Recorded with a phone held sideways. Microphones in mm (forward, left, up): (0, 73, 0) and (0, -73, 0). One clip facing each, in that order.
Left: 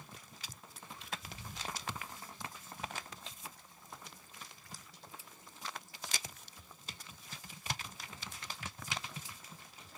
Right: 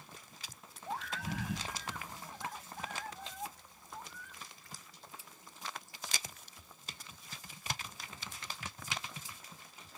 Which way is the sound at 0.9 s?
80° right.